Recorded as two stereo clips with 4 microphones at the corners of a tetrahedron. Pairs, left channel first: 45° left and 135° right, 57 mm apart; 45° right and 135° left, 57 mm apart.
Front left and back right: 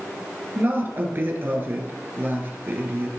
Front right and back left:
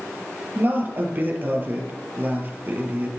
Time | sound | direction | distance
0.6 | a woman speaking | straight behind | 2 m